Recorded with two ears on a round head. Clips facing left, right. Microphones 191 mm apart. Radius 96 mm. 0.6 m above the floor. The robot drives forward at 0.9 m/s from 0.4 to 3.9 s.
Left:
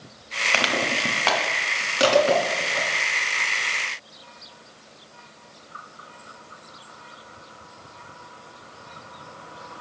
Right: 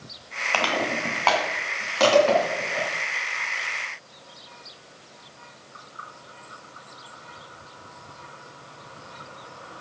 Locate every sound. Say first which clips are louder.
0.5 s crushing: even; 25° left (ahead or behind), 1.6 m; by 2.9 s 10° left (ahead or behind), 3.5 m